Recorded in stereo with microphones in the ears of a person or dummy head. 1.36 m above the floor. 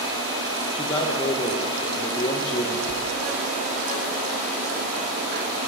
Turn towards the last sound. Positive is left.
turn(degrees=85)